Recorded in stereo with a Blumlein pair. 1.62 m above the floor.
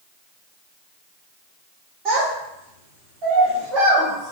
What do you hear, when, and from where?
2.0 s a child speaking: 35° right, 1.2 m